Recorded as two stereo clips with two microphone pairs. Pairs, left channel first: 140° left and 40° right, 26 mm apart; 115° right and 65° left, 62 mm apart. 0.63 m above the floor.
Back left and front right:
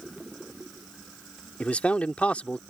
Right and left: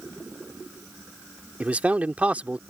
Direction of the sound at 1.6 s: 130° left.